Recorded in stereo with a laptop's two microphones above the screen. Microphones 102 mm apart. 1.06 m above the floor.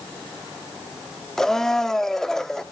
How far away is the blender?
About 0.9 m.